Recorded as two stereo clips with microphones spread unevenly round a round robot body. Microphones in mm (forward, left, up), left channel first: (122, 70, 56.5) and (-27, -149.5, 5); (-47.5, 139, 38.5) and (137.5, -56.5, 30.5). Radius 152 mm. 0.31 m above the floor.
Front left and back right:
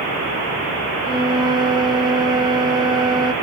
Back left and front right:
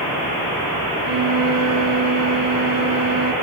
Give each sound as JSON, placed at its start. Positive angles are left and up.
{"t": 1.0, "sound": "a flute", "azimuth_deg": -50, "distance_m": 2.5}